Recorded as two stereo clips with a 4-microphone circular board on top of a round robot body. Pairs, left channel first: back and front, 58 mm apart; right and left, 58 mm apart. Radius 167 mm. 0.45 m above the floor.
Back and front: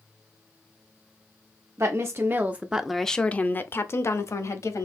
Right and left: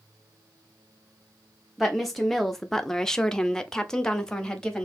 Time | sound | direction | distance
1.8 | a woman speaking | straight ahead | 0.9 m